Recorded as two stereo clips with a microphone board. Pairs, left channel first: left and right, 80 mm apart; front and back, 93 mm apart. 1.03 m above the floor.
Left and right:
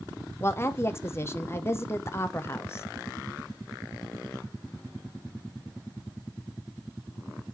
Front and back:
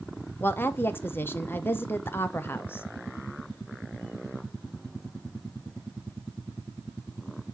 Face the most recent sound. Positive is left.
turn(degrees=55)